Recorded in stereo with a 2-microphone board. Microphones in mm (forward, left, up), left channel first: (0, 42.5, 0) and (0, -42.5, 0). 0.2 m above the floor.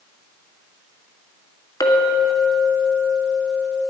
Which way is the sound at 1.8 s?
50° left (ahead or behind).